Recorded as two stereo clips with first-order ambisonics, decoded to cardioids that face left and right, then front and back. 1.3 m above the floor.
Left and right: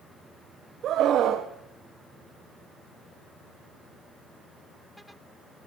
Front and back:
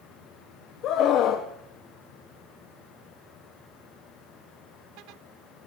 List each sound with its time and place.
0.8 s a scream: 40° right, 0.8 m